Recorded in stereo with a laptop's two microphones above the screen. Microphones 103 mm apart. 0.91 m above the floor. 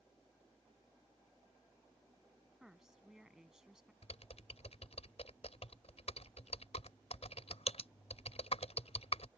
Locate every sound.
0.0 s a fan: centre (ahead or behind)
2.6 s a woman speaking: 5° right (ahead or behind)
4.0 s typing on a keyboard: 75° left (ahead or behind)